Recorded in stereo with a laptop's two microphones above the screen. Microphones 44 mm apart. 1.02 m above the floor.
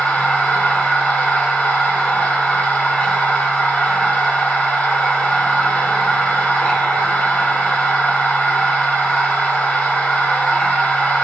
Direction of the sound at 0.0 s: 25° left (ahead or behind).